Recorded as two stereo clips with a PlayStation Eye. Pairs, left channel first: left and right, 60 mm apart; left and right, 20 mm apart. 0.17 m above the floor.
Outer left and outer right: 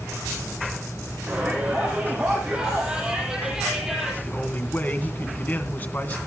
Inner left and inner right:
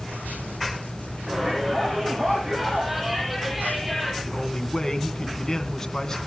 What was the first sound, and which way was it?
A shout, 20° right (ahead or behind).